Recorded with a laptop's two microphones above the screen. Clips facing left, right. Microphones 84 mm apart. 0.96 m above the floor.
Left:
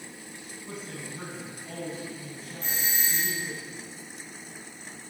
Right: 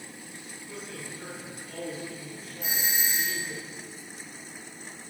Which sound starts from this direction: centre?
A doorbell, at 2.6 s.